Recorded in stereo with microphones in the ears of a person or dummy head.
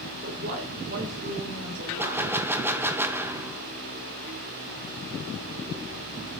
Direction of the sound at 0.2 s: 45° right (ahead or behind).